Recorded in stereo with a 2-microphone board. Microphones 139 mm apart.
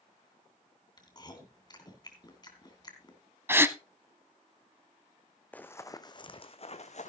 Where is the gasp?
15° right (ahead or behind), 0.6 m.